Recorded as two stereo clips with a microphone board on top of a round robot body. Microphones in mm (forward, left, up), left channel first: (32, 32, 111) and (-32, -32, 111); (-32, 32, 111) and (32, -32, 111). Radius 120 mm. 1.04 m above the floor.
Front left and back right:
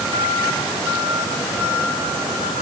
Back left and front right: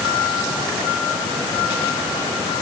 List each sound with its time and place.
Only background noise.